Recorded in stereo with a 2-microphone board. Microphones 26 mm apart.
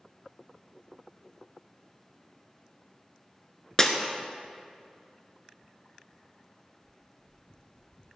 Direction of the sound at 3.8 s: 25° left (ahead or behind).